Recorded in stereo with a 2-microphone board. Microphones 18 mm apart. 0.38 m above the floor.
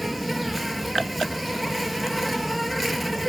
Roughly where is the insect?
Centre.